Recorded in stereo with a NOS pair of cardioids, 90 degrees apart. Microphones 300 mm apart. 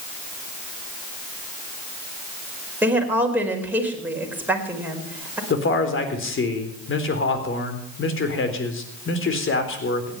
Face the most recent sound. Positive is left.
turn(degrees=40)